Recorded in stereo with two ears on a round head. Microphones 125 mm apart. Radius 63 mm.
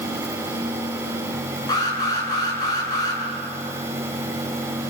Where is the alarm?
25° left (ahead or behind), 7 m.